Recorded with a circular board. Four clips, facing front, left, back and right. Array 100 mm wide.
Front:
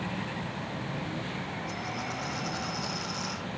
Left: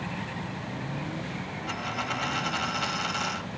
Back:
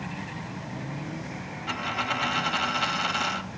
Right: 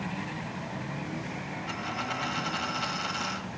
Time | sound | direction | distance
1.7 | a dropped coin | 170° left | 1.3 m